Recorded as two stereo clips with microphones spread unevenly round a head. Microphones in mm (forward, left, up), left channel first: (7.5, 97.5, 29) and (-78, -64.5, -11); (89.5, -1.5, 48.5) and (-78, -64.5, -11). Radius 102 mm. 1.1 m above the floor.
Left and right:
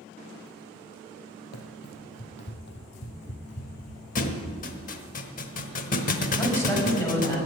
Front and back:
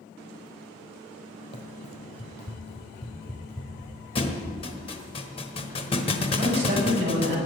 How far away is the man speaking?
About 6 m.